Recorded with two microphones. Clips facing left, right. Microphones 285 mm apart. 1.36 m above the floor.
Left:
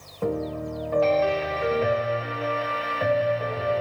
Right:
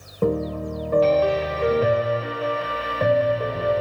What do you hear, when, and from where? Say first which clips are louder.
0.2 s a piano: right 4 dB; 40° right (ahead or behind), 1.2 m